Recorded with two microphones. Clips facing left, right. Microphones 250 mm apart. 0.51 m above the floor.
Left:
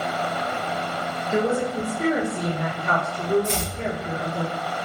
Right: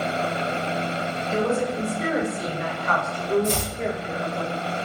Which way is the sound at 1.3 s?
30° left (ahead or behind).